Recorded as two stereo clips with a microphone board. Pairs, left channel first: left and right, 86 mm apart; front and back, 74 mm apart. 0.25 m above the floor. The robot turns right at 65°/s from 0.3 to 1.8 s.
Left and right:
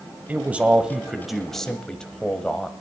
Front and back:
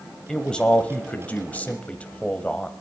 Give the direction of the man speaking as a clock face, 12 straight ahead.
2 o'clock.